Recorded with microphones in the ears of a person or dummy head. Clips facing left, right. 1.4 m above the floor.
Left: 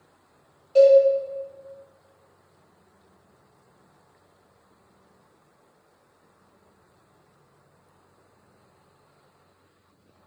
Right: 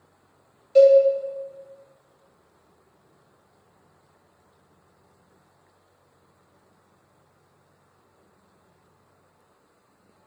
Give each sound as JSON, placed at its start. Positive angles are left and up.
{"t": 0.8, "sound": "a cowbell", "side_deg": -20, "distance_m": 0.8}